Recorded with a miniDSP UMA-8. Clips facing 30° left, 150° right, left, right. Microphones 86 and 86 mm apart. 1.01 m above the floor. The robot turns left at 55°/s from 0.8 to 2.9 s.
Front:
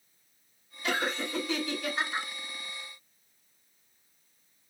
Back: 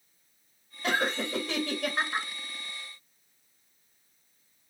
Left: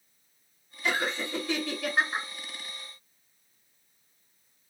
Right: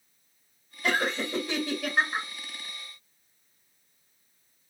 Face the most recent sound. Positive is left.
turn(degrees=120)